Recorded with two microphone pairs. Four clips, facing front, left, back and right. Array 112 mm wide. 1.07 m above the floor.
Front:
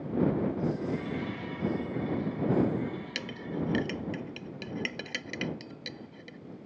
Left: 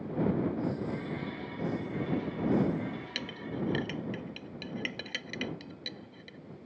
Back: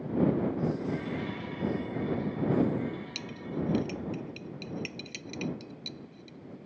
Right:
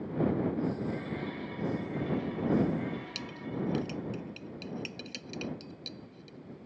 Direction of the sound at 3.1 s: 30° left.